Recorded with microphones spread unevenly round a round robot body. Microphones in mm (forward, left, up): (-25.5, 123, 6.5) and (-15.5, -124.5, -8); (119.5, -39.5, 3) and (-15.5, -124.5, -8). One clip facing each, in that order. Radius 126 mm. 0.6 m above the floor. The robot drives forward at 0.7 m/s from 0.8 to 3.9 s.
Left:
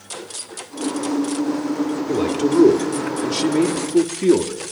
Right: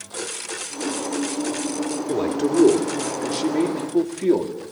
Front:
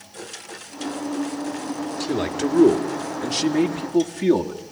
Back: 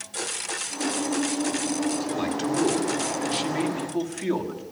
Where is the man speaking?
10° left, 2 m; by 4.6 s 35° left, 1.3 m.